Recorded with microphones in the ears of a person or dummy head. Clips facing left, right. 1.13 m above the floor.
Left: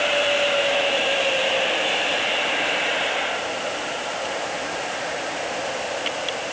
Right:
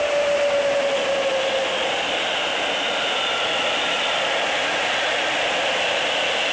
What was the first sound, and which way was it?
Only background noise.